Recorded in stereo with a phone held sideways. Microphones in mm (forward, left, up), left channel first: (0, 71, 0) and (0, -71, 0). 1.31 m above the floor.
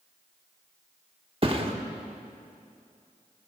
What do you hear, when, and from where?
1.4 s a thud: 40° right (ahead or behind), 1.2 m